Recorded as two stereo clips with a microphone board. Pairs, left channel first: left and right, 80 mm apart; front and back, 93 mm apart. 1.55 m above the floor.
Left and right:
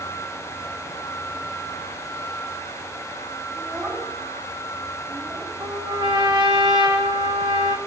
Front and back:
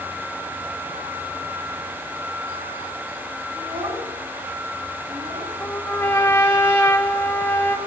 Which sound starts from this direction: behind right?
A child speaking, at 3.5 s.